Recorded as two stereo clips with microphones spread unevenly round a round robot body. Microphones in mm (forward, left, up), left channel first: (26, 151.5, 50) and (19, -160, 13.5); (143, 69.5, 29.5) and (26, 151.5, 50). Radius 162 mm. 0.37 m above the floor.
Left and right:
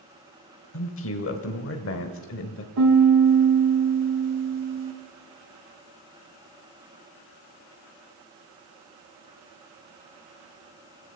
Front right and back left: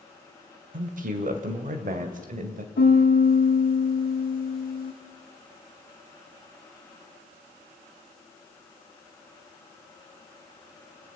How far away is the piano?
About 4 m.